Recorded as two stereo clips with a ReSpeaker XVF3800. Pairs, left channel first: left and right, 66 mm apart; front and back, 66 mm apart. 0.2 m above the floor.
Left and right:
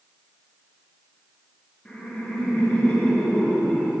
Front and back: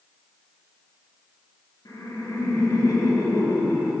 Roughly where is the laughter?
Ahead.